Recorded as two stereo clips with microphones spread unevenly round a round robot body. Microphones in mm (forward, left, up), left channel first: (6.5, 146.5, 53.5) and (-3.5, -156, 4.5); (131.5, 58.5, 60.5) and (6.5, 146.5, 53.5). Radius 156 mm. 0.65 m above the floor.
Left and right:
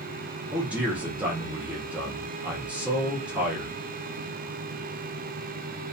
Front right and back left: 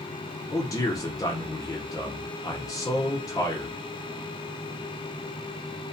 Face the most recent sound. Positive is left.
turn(degrees=-45)